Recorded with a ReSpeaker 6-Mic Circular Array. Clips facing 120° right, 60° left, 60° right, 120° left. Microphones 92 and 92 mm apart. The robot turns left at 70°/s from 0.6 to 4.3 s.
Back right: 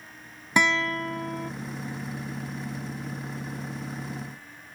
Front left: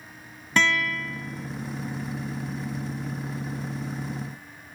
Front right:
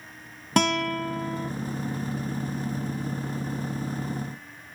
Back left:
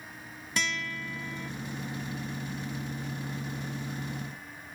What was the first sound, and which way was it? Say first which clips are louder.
A guitar: even, front right 11 dB; 45° right.